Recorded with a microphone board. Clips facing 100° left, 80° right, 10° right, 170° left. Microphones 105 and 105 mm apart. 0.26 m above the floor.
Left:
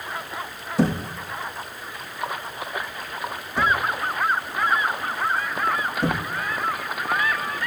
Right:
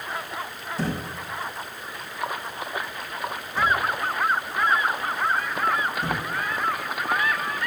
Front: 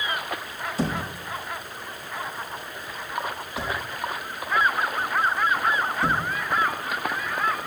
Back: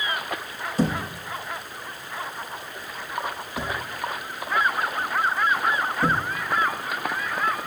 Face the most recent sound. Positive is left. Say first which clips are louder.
# left 7 dB, back 4 dB
turn(degrees=125)